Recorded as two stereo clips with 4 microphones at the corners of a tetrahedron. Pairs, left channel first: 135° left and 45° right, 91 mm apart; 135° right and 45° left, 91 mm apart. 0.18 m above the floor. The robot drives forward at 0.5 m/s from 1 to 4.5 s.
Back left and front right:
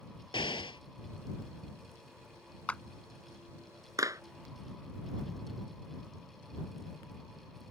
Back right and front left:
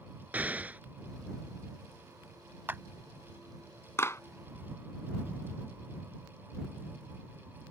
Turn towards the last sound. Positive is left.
turn(degrees=-90)